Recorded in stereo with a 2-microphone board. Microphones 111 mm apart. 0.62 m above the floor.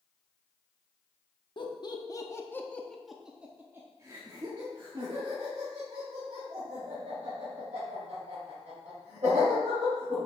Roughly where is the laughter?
Left.